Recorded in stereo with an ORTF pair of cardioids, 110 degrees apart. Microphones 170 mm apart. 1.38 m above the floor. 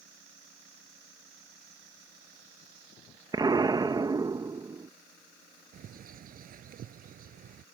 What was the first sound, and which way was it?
An explosion, 25° right.